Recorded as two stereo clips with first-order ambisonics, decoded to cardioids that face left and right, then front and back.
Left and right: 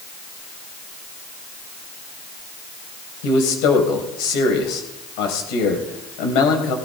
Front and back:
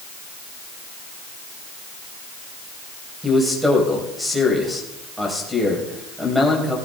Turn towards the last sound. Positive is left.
turn(degrees=95)